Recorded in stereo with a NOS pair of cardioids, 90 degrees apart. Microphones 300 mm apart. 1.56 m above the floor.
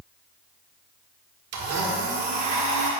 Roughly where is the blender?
Ahead right.